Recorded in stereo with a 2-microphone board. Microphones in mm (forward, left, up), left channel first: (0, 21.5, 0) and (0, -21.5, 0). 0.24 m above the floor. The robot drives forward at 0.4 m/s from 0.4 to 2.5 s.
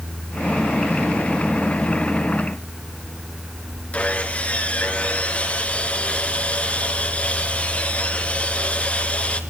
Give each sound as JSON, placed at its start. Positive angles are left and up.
{"t": 3.9, "sound": "sawing", "side_deg": 30, "distance_m": 2.5}